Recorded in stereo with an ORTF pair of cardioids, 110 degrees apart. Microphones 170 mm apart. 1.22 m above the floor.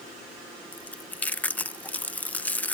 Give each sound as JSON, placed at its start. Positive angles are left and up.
{"t": 0.7, "sound": "chewing", "azimuth_deg": 10}